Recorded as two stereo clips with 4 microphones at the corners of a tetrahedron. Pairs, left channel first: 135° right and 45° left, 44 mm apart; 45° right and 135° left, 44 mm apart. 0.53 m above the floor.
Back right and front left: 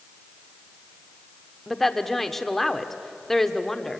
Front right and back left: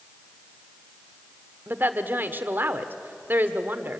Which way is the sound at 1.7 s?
140° left.